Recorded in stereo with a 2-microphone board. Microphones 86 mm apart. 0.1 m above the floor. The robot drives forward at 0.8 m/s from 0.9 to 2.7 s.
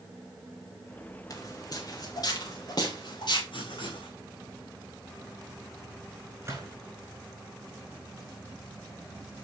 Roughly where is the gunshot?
Right.